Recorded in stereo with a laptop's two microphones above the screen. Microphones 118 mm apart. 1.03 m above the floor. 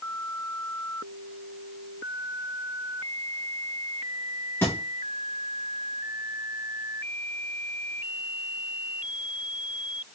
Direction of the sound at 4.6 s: 20° left (ahead or behind).